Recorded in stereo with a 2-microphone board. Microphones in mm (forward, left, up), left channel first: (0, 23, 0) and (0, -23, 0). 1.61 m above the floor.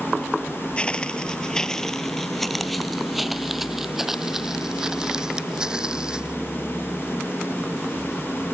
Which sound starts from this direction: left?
Footsteps, at 0.8 s.